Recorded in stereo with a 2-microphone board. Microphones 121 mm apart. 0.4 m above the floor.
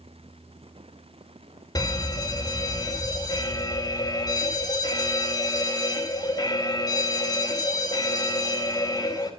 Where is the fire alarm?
30° left (ahead or behind), 2.5 m.